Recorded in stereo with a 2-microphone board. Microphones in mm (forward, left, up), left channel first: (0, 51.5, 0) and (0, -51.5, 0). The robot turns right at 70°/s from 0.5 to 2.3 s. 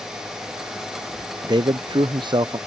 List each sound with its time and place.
1.4 s a man speaking: 125° right; by 2.6 s 65° right